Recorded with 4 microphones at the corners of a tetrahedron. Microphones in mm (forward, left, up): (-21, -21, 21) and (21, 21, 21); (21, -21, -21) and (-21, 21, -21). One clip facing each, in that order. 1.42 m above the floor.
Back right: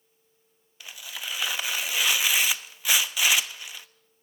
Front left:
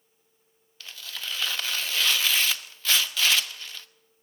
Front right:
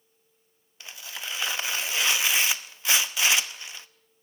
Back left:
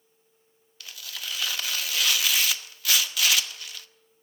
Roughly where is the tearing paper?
Right.